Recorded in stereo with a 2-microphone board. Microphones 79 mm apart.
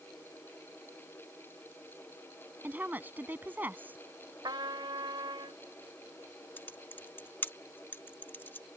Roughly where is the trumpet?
Right.